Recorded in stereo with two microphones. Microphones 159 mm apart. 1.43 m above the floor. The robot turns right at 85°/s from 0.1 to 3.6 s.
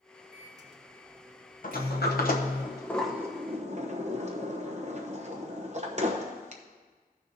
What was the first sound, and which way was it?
A microwave, centre (ahead or behind).